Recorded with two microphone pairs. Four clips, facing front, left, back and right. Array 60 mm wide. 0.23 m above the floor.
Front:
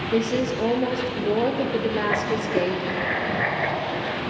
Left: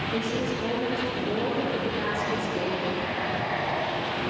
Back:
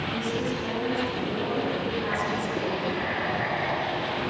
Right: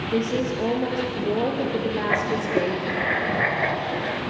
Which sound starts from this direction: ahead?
A woman speaking, at 0.1 s.